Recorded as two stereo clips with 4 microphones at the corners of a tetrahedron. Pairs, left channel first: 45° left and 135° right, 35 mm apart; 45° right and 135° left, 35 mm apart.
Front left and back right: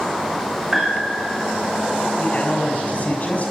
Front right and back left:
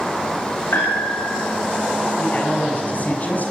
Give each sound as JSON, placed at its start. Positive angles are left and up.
{"t": 0.7, "sound": "a piano", "azimuth_deg": -45, "distance_m": 10.0}
{"t": 2.2, "sound": "a man speaking", "azimuth_deg": 0, "distance_m": 6.5}